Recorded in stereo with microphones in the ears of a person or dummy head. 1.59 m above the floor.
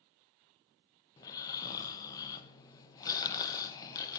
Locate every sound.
1.2 s snoring: 25° left (ahead or behind), 0.9 m